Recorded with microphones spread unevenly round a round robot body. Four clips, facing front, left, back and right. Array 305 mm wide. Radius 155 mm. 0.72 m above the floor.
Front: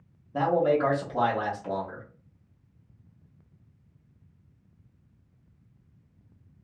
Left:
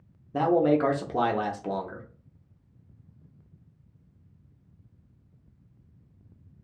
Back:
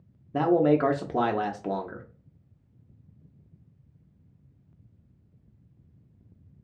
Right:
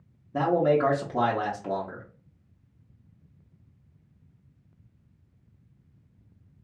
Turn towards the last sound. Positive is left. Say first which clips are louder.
# even, back 2 dB
turn(degrees=170)